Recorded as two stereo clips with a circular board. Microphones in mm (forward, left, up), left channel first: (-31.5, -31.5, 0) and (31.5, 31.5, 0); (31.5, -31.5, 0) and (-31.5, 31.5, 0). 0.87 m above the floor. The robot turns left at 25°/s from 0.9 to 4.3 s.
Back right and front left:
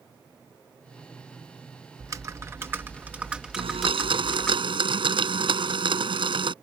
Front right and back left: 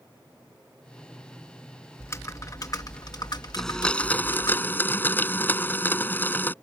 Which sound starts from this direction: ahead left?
A blender, at 3.6 s.